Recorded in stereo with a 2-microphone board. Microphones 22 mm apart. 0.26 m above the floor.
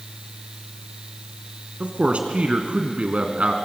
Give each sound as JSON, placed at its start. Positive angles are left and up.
{"t": 1.8, "sound": "a man speaking", "side_deg": -60, "distance_m": 2.5}